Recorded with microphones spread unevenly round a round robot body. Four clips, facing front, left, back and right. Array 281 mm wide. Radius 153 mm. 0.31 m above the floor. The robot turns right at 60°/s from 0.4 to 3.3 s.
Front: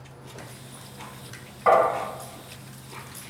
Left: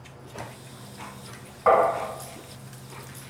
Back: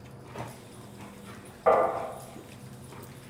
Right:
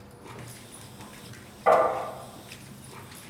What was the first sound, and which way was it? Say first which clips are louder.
Tapping: left 1 dB, front 4 dB; 95° left.